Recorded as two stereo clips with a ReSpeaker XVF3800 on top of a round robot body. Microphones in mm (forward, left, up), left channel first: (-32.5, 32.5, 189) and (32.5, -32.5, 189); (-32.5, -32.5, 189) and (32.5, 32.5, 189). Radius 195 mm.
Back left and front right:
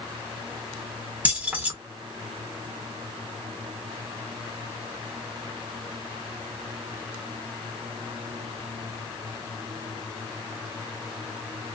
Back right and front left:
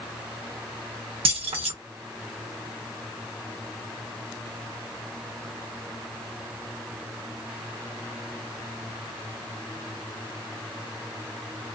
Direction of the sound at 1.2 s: 30° left.